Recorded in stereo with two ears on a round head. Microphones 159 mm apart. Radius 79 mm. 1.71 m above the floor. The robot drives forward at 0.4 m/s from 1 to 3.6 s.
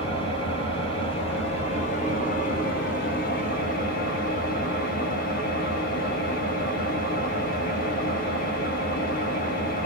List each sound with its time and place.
0.0 s an engine running: 35° left (ahead or behind), 1.2 m; by 9.9 s 50° left (ahead or behind), 0.9 m